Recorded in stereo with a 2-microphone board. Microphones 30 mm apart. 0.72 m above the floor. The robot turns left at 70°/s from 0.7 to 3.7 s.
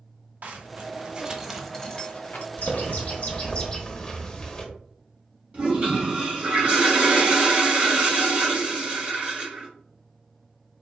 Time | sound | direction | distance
0.4 | a zipper | 60° right (ahead or behind) | 1.1 m
2.6 | a bird | 105° left | 1.1 m
5.5 | a toilet flushing | 40° right (ahead or behind) | 2 m